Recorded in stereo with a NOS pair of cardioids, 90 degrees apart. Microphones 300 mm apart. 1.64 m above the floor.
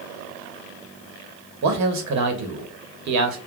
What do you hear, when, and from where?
1.6 s a man speaking: 60° right, 1.1 m